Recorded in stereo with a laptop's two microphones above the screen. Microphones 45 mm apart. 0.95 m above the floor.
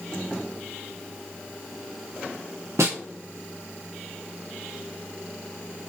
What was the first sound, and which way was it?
A snare drum, 80° right.